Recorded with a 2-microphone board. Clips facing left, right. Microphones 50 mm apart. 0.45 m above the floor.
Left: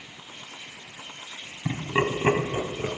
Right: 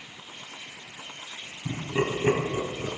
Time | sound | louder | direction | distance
1.6 | laughter | left 2 dB | 45° left (ahead or behind) | 3.5 m